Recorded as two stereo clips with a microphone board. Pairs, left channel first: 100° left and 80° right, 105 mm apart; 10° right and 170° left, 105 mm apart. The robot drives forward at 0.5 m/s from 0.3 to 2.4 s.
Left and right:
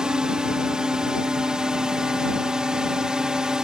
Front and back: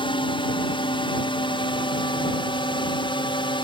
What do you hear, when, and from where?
0.0 s a drone: straight ahead